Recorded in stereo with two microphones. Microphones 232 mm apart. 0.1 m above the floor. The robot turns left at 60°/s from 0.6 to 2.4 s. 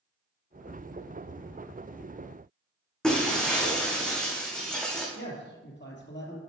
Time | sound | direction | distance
3.0 | breaking glass | 5° left (ahead or behind) | 2.5 m
5.2 | a man speaking | 50° left (ahead or behind) | 2 m